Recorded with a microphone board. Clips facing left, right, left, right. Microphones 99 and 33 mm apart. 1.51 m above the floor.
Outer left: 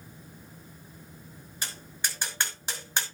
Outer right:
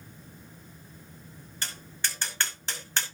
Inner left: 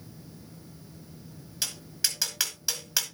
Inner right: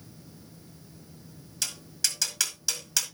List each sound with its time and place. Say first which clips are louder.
1.6 s tapping: even, even; 15° left (ahead or behind), 5 m